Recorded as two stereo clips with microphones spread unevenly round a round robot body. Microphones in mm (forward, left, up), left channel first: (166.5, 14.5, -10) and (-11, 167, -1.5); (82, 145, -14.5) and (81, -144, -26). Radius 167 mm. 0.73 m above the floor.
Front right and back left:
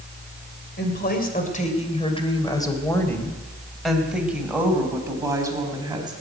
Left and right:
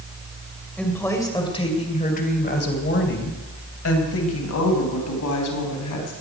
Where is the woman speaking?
5° left, 2.5 m; by 6.1 s 65° left, 5 m.